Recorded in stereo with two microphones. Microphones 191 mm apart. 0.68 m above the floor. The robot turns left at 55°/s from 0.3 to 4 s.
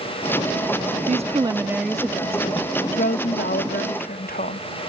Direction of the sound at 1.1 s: 130° right.